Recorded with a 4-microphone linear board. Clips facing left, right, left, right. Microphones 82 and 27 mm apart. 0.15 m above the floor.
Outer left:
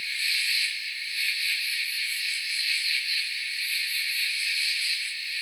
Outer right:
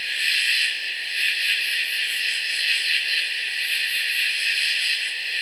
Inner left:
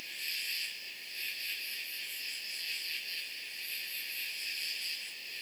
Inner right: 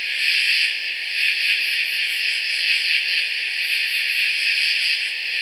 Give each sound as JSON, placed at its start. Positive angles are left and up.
{"t": 0.0, "sound": "an insect", "side_deg": -70}